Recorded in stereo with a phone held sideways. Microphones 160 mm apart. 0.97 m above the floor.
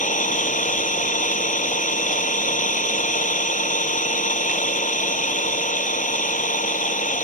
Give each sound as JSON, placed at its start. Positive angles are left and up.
{"t": 0.0, "sound": "an engine running", "side_deg": 50}